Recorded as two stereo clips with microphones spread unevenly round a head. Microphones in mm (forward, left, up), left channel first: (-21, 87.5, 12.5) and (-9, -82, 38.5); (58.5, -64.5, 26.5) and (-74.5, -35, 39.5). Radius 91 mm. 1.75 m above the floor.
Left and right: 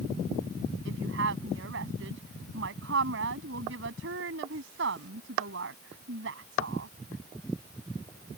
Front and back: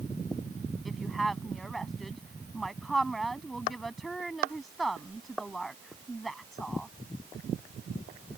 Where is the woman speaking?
100° right.